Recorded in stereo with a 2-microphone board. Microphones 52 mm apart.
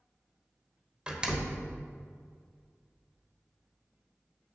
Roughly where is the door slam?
Centre.